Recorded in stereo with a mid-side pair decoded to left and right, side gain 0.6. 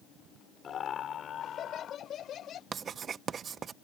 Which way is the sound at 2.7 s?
40° right.